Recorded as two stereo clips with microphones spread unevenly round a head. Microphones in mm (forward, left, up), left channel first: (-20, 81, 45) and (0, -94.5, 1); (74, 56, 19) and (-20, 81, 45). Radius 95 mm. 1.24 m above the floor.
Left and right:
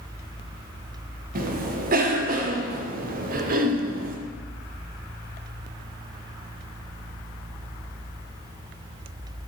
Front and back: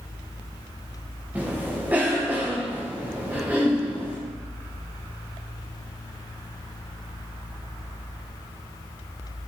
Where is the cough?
110° right, 1.0 m.